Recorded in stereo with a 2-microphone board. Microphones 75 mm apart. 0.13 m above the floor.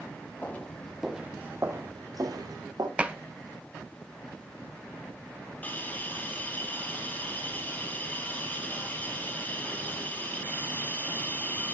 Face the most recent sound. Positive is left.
turn(degrees=20)  # may be behind; listen again after turning